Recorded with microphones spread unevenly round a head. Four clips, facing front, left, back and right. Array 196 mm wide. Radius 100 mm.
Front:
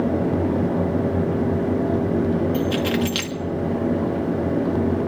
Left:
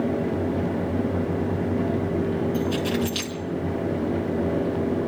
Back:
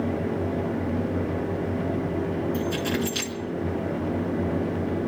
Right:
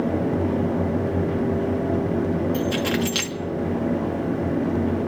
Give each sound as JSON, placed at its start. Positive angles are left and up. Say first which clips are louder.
{"t": 2.5, "sound": "keys jangling", "louder": "right 1 dB, front 5 dB", "azimuth_deg": -50, "distance_m": 1.6}